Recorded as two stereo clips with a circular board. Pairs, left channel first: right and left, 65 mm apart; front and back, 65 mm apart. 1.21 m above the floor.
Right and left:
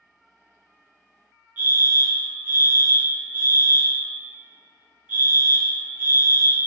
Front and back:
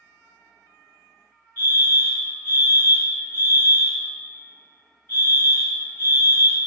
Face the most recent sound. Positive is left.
turn(degrees=40)